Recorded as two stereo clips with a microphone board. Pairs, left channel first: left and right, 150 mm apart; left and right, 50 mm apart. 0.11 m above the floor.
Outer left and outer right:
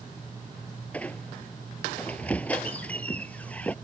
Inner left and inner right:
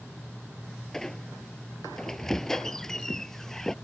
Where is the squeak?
10° left (ahead or behind).